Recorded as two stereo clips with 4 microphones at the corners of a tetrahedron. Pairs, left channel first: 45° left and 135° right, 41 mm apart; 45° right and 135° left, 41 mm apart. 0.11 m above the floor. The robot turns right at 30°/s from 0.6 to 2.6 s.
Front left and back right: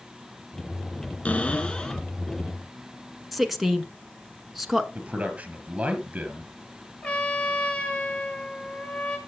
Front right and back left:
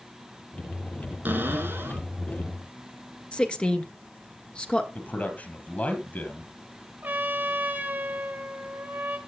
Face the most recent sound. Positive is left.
turn(degrees=100)